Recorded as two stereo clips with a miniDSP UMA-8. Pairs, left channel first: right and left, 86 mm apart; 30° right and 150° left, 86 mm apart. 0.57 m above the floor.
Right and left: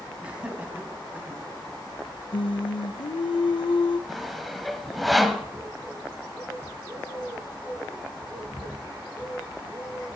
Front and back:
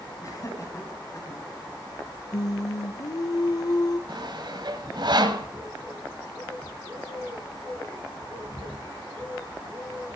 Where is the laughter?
15° left, 5.5 m; by 1.4 s 25° left, 4.5 m.